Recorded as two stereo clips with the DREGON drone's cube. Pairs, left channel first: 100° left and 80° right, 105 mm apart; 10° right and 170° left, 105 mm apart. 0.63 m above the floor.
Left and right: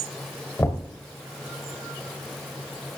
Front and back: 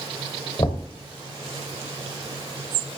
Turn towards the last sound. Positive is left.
turn(degrees=35)